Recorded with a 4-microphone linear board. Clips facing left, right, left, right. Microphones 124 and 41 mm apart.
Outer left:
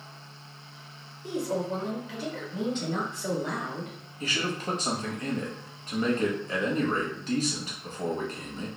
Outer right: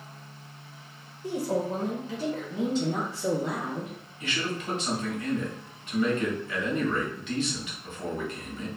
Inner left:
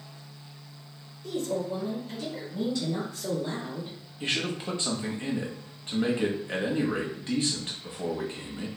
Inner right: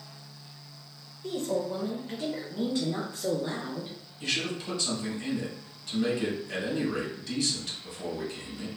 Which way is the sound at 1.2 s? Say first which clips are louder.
Outer right 1 dB, even; 35° right (ahead or behind).